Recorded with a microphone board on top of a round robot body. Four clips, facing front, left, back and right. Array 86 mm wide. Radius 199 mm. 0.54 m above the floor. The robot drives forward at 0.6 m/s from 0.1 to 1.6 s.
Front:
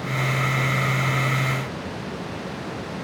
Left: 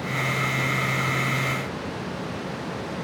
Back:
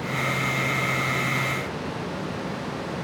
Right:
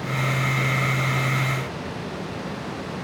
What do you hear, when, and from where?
Only background noise.